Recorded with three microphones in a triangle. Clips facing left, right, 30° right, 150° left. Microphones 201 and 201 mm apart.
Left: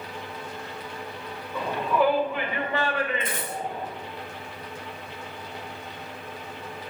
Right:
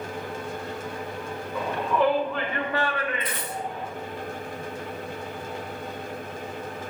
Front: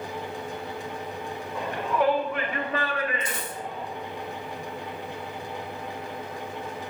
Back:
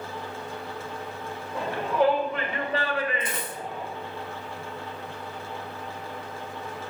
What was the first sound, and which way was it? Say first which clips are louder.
A shout: even, back 2 dB; 175° right.